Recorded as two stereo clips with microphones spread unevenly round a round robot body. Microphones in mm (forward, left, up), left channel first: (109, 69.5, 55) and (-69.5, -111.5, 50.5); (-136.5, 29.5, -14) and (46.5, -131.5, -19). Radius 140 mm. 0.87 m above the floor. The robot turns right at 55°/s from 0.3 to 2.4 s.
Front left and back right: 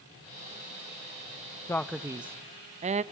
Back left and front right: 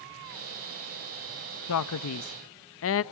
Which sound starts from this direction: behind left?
A man speaking, at 1.7 s.